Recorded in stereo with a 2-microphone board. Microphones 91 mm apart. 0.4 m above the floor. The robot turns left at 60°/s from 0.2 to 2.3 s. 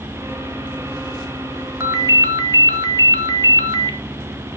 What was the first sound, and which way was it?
A ringtone, 30° right (ahead or behind).